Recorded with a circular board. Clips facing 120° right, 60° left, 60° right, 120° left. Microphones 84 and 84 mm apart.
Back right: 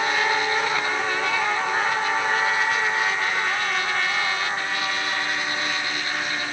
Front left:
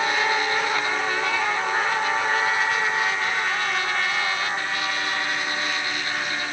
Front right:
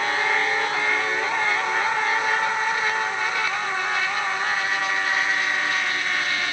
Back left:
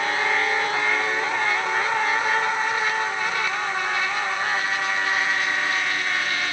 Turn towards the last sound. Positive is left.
No sound to turn to.